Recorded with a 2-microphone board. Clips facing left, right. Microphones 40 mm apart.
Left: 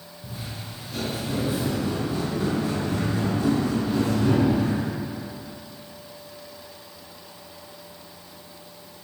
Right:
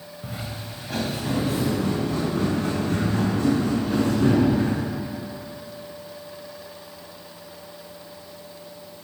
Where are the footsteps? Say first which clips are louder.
Right 2 dB; 50° right (ahead or behind), 2.5 m.